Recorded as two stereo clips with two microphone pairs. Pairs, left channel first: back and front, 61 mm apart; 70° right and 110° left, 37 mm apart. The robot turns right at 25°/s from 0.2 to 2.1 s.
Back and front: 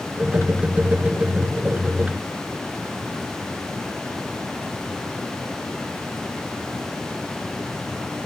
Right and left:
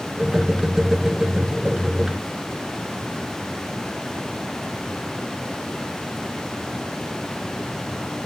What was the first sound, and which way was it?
Only background noise.